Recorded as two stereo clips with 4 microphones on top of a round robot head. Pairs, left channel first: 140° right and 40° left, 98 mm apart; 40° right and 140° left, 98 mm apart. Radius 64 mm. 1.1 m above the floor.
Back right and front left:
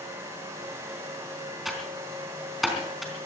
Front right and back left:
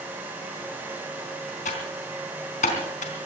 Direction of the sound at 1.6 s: 50° right.